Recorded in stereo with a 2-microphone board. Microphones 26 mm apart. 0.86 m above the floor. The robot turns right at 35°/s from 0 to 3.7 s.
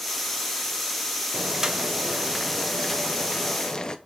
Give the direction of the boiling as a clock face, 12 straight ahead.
1 o'clock.